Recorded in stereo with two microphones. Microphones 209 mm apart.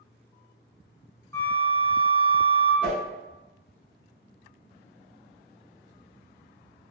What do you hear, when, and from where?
1.3 s a flute: 15° left (ahead or behind), 0.7 m
2.8 s a whoosh: 5° right (ahead or behind), 1.0 m